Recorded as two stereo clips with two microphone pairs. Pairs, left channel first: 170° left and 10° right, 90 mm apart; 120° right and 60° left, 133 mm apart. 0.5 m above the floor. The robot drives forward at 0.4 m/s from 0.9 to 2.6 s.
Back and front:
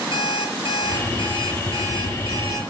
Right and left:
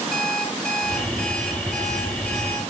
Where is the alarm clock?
155° left, 6 m.